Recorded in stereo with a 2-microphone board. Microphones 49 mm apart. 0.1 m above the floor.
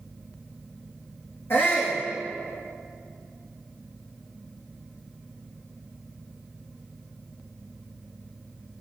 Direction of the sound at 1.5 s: 55° left (ahead or behind).